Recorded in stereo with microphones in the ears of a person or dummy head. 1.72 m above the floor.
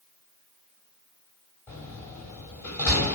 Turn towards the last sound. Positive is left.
turn(degrees=10)  # may be behind; listen again after turning